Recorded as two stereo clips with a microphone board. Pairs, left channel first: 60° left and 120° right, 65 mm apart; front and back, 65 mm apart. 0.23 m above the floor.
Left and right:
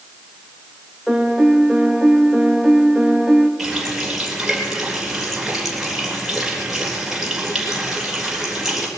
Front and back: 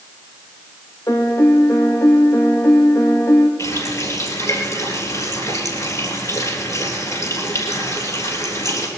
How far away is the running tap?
About 3.5 m.